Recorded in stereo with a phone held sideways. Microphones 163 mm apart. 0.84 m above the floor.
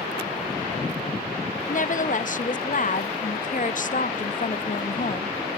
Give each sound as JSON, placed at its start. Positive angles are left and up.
{"t": 1.7, "sound": "a woman speaking", "side_deg": 55, "distance_m": 0.6}